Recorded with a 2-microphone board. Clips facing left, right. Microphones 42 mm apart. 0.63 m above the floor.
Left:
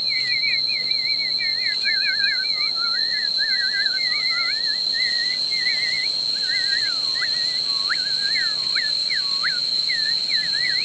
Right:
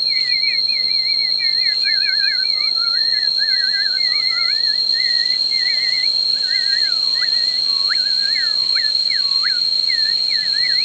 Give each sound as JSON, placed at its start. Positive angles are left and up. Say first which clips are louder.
{"t": 0.0, "sound": "an insect", "louder": "right 3 dB", "side_deg": 50}